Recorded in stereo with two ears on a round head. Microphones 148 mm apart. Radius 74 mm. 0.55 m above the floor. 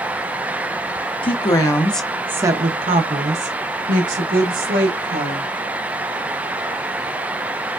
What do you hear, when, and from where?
1.2 s a woman speaking: 35° left (ahead or behind), 0.8 m; by 5.5 s 60° right (ahead or behind), 2 m